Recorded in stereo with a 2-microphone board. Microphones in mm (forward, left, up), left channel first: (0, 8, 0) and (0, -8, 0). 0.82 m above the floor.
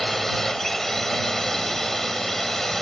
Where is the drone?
15° left (ahead or behind).